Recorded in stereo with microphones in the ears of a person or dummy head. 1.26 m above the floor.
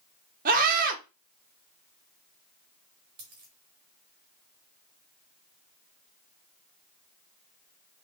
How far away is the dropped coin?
About 1.2 m.